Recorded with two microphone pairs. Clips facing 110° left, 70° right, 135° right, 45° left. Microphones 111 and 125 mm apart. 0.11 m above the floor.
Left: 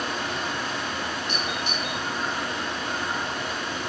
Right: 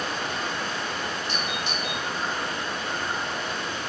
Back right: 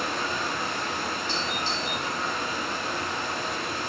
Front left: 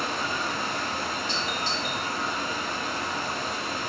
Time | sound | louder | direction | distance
0.0 | running water | left 1 dB, even | 20° left | 1.3 m
1.3 | a doorbell | left 1 dB, even | 10° left | 1.7 m